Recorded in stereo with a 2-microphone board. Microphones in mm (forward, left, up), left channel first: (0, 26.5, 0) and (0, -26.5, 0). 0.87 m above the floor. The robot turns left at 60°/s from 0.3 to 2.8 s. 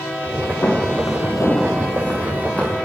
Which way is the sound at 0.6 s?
55° left (ahead or behind).